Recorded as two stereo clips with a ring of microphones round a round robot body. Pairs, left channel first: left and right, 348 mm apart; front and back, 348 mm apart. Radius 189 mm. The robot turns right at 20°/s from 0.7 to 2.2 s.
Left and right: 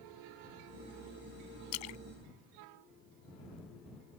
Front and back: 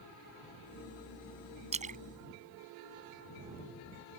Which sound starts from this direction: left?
A splash, at 1.7 s.